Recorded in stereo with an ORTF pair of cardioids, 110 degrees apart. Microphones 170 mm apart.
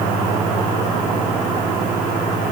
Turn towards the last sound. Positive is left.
No sound to turn to.